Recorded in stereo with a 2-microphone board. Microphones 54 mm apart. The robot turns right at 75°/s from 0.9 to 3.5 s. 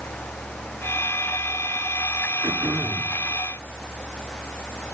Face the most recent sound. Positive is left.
turn(degrees=5)